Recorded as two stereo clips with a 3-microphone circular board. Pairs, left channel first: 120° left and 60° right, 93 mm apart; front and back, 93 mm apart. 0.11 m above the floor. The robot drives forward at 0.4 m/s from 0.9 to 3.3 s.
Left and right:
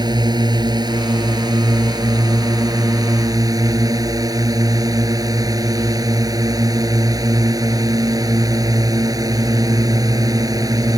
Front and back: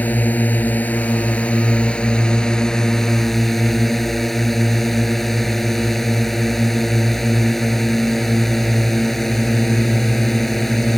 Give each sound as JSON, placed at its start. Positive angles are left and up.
{"t": 0.0, "sound": "a drone", "azimuth_deg": -65}